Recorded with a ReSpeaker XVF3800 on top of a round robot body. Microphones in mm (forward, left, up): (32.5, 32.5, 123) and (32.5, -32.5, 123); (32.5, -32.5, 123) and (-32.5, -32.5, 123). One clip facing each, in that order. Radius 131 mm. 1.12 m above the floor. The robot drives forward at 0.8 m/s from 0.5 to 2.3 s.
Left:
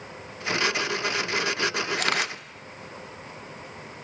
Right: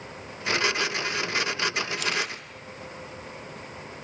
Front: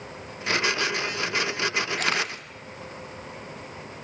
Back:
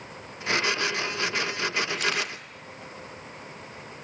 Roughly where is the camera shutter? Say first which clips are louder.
Left 3 dB, front 2 dB; ahead left.